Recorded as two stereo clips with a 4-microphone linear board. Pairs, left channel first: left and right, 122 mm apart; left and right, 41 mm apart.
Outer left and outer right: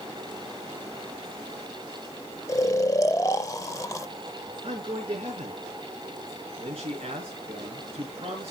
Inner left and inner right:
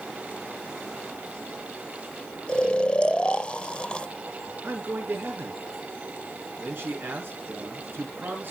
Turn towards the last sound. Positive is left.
turn(degrees=-55)  # may be behind; listen again after turning